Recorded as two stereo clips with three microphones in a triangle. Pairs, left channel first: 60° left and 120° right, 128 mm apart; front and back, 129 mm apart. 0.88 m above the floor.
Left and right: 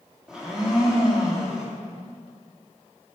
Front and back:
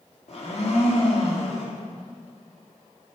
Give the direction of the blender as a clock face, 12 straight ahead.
1 o'clock.